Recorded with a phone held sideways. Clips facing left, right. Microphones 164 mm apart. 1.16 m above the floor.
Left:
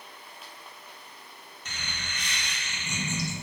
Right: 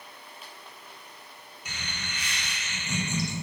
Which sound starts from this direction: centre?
Laughter, at 1.6 s.